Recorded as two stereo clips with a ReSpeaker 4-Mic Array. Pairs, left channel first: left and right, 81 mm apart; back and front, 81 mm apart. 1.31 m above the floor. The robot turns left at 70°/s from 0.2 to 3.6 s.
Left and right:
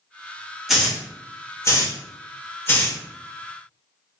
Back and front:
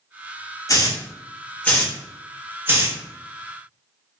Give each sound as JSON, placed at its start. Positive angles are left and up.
{"t": 0.7, "sound": "a hiss", "azimuth_deg": -175, "distance_m": 0.7}